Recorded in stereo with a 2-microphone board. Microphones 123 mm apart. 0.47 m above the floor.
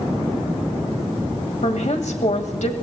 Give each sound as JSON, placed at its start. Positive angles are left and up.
{"t": 1.6, "sound": "a woman speaking", "side_deg": 70, "distance_m": 1.9}